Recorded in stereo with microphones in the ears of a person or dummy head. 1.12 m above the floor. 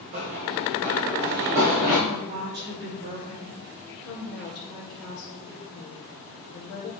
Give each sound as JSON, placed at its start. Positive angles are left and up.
{"t": 0.1, "sound": "running footsteps", "side_deg": -30, "distance_m": 1.8}
{"t": 2.1, "sound": "a woman speaking", "side_deg": -50, "distance_m": 3.0}
{"t": 4.0, "sound": "a woman speaking", "side_deg": 70, "distance_m": 2.0}